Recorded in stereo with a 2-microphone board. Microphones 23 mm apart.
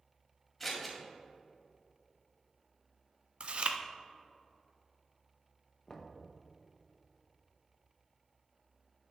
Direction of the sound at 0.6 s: 5° left (ahead or behind).